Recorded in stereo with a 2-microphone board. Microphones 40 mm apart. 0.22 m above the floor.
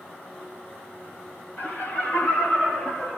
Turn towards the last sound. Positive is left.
turn(degrees=30)  # may be behind; listen again after turning